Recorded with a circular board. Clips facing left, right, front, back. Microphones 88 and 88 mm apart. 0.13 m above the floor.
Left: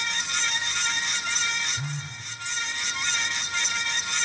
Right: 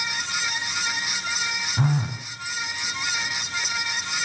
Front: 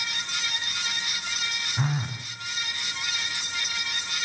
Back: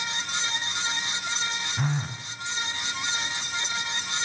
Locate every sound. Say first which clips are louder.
1.8 s a phone buzzing: right 11 dB, front 2 dB; 85° right, 1.2 m